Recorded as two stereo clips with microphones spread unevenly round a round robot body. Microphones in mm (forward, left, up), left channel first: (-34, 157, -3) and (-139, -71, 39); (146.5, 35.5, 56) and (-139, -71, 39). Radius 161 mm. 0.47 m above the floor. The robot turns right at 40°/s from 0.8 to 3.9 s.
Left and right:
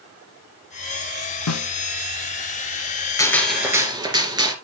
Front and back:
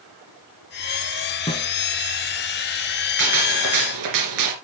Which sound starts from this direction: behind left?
A gunshot, at 3.2 s.